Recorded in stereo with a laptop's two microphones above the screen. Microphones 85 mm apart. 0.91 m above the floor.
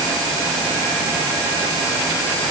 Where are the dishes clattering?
No dishes clattering in this recording.